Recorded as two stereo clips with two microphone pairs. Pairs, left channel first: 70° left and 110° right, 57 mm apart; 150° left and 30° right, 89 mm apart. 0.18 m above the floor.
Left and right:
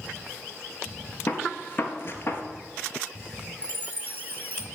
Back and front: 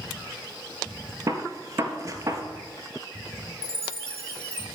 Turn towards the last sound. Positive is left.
turn(degrees=-70)